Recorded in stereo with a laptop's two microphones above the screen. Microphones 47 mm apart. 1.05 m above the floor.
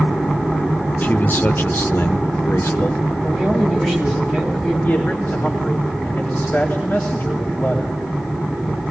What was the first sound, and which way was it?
A man speaking, 40° left (ahead or behind).